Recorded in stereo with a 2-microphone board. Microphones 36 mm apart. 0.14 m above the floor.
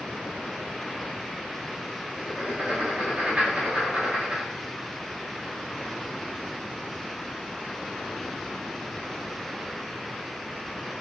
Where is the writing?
40° right (ahead or behind), 1.2 m.